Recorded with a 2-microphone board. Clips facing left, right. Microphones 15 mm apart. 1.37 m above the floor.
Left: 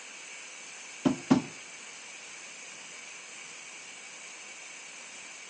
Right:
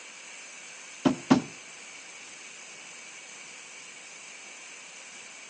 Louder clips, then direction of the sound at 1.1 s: Right 2 dB; 25° right (ahead or behind).